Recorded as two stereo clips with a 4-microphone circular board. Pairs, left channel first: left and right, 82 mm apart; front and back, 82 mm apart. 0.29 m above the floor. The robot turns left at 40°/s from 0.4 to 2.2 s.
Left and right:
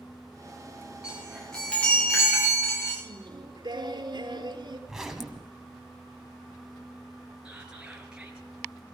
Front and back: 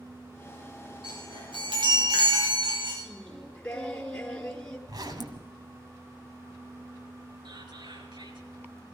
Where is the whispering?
170° right, 4 m.